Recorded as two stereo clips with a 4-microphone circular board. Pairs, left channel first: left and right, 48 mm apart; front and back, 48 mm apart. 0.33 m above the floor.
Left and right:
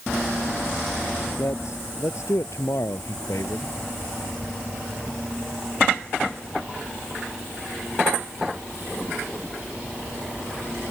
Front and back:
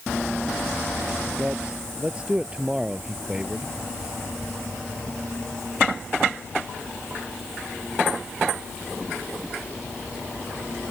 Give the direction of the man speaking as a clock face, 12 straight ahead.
8 o'clock.